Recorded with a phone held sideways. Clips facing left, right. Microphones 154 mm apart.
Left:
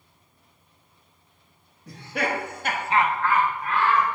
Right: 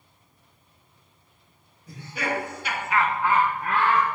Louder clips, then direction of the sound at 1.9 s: Left 2 dB; 70° left (ahead or behind).